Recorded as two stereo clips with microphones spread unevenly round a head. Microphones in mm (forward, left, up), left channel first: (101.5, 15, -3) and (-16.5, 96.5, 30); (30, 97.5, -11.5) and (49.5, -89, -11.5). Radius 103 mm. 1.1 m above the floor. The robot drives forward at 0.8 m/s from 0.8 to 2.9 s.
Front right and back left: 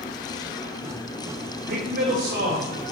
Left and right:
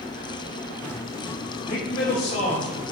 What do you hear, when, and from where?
1.7 s a man speaking: 155° left, 4.5 m; by 2.9 s 160° left, 5 m